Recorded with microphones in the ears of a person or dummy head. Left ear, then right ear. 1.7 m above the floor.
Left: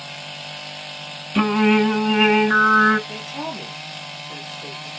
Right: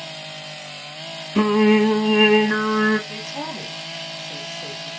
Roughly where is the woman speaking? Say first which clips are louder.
Even; centre.